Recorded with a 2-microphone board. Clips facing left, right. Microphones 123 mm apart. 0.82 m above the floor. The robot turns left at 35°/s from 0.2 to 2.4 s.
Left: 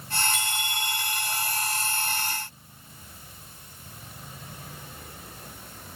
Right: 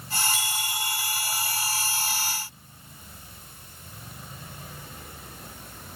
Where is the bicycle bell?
60° left, 4.5 m; by 1.3 s 25° left, 4.5 m.